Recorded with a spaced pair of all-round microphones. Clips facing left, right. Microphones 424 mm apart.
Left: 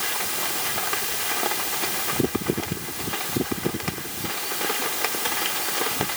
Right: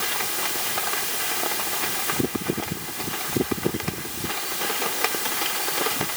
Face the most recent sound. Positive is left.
No sound to turn to.